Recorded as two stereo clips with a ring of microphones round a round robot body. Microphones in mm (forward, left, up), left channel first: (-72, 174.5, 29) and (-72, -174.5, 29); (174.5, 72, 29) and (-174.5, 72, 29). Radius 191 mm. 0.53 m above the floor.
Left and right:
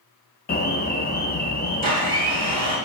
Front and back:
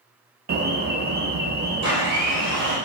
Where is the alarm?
135° left, 0.5 m.